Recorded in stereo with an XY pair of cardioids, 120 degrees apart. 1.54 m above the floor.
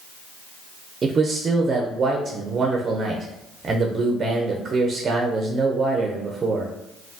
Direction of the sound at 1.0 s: 35° right.